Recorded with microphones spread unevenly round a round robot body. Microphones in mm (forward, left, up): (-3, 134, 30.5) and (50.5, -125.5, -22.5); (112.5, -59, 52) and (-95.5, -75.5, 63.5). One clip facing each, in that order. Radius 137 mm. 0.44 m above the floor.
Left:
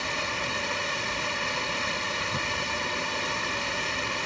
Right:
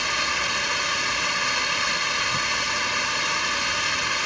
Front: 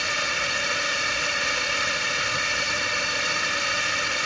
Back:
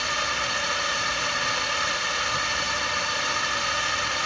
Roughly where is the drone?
Ahead right.